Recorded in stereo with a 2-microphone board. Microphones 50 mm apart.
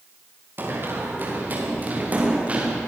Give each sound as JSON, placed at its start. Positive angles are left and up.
{"t": 0.6, "sound": "running footsteps", "side_deg": -45, "distance_m": 6.5}